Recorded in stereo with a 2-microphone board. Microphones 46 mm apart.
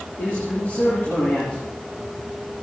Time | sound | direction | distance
0.2 | a man speaking | 40° left (ahead or behind) | 8 m